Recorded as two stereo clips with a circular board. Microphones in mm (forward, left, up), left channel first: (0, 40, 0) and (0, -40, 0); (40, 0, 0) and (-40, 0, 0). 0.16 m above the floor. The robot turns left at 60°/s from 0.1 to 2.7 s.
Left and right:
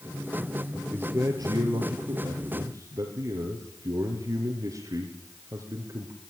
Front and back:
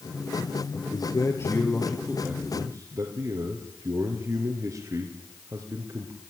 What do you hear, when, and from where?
0.9 s a man speaking: 20° right, 2.5 m; by 6.1 s 130° right, 2.5 m